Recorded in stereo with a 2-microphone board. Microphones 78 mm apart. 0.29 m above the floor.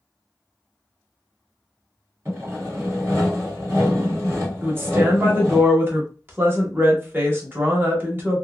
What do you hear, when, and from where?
2.2 s sawing: 40° right (ahead or behind), 1.9 m
4.6 s a woman speaking: 30° right (ahead or behind), 1.0 m